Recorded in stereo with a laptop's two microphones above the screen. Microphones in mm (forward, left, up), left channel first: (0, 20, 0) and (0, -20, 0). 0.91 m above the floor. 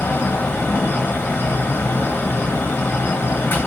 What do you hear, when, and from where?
0.0 s a fan: 80° left, 0.9 m